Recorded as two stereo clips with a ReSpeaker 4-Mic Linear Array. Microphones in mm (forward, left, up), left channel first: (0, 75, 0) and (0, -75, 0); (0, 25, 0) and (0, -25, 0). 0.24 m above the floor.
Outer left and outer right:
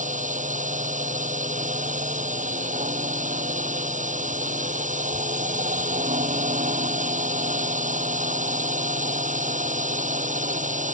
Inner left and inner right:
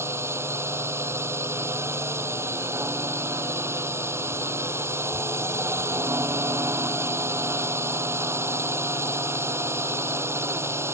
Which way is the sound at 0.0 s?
60° right (ahead or behind).